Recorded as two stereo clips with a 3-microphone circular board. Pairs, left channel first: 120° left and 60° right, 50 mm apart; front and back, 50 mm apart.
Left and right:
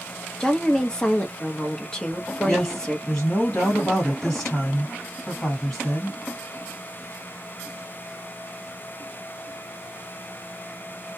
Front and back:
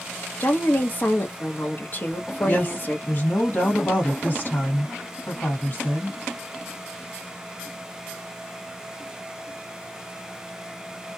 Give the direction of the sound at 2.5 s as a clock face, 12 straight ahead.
11 o'clock.